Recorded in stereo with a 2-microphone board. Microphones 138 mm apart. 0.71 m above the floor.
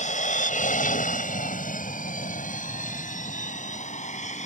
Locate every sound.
0.0 s an aircraft: 60° left (ahead or behind)